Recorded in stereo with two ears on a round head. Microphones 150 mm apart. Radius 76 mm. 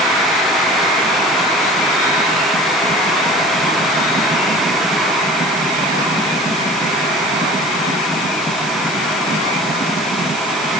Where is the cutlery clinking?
No cutlery clinking in this recording.